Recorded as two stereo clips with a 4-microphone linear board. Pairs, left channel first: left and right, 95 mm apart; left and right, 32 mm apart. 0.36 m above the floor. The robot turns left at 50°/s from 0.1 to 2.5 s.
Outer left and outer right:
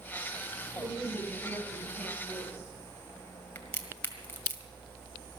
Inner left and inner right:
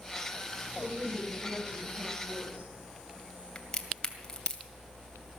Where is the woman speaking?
Straight ahead, 10 m; by 2.7 s 85° right, 10 m.